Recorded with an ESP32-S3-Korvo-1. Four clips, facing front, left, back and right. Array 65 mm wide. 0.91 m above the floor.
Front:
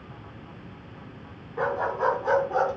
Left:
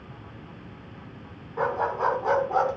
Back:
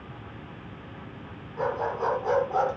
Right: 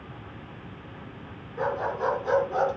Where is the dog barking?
75° left, 4.5 m; by 2.7 s 100° left, 4 m.